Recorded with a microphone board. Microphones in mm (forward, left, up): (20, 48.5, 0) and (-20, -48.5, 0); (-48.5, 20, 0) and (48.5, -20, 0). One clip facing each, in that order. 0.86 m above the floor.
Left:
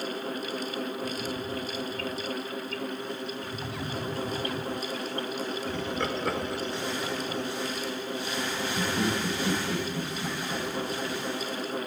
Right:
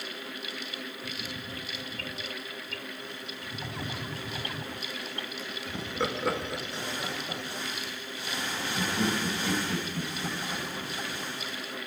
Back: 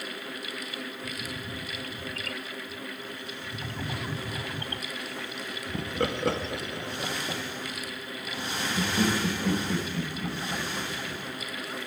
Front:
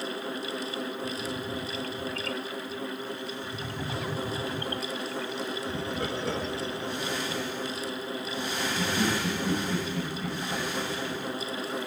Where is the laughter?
170° left, 0.9 m; by 11.2 s 140° left, 4.5 m.